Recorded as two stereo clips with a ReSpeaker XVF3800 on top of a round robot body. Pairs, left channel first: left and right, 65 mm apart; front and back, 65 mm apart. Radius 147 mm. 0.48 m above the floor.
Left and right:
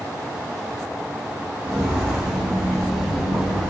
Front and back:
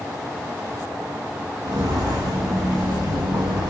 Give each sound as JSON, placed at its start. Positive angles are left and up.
{"t": 1.6, "sound": "footsteps", "azimuth_deg": -160, "distance_m": 2.5}